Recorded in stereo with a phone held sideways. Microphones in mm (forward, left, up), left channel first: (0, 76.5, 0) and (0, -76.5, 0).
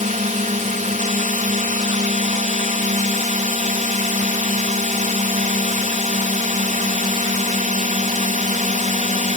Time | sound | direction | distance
0.0 | a drone | 55° right (ahead or behind) | ?